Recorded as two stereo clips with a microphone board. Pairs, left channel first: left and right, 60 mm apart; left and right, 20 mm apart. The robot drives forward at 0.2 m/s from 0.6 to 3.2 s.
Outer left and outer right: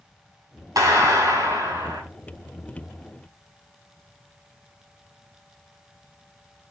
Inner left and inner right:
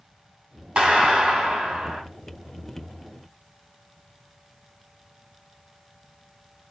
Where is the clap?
80° right, 5 m.